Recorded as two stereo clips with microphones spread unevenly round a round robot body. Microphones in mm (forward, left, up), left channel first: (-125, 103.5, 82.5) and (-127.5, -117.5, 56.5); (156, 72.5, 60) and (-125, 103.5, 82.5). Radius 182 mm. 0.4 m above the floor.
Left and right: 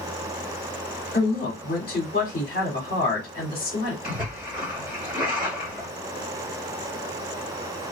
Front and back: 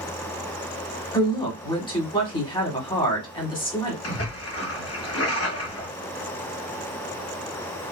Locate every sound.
1.1 s a woman speaking: 55° left, 1.8 m
4.0 s a splash: 10° right, 2 m